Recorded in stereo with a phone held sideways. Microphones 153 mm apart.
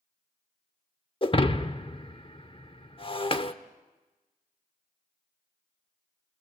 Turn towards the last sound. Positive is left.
turn(degrees=35)  # may be behind; listen again after turning